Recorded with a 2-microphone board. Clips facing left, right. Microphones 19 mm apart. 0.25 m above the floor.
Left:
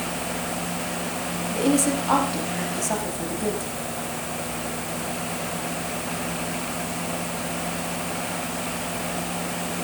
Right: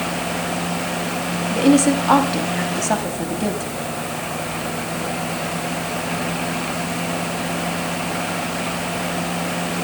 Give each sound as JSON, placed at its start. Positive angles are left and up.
{"t": 1.5, "sound": "a woman speaking", "side_deg": -35, "distance_m": 1.2}